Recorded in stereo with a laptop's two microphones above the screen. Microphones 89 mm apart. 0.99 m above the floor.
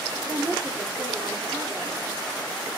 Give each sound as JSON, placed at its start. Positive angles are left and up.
{"t": 0.2, "sound": "a woman speaking", "side_deg": -30, "distance_m": 3.5}